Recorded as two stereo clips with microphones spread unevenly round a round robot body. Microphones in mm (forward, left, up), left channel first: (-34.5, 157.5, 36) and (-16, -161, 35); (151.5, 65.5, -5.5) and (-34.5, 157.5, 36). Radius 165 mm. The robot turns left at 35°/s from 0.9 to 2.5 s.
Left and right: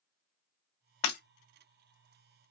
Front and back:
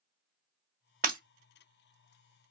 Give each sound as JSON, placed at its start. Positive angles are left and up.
{"t": 1.0, "sound": "breaking glass", "azimuth_deg": 105, "distance_m": 1.8}